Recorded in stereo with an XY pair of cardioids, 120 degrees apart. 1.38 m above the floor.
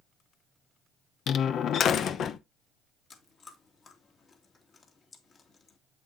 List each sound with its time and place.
1.3 s a door slam: 55° left, 0.8 m
3.1 s chewing: 35° left, 2.5 m